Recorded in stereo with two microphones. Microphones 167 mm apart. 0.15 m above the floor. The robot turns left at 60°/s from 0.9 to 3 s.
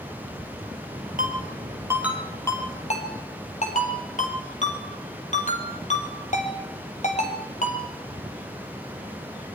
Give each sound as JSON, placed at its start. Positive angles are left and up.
{"t": 1.2, "sound": "a ringtone", "side_deg": -55, "distance_m": 2.5}